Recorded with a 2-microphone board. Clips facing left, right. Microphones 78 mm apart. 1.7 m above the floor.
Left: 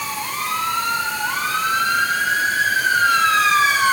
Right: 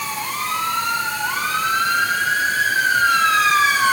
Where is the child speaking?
I don't hear a child speaking.